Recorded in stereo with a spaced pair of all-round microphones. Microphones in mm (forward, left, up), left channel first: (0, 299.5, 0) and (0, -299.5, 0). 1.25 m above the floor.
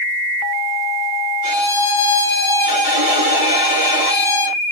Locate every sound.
1.4 s a violin: 70° right (ahead or behind), 3 m